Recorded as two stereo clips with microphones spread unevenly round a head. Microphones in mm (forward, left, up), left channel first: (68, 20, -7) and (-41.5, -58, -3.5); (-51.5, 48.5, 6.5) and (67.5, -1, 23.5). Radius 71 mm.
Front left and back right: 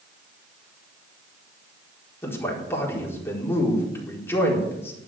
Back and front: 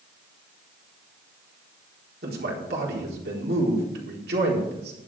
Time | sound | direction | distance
2.2 | a man speaking | 35° right | 4 m